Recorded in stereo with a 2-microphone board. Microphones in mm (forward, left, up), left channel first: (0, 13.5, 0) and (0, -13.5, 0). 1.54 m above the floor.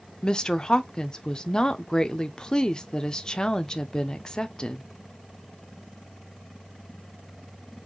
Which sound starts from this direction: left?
A woman speaking, at 0.2 s.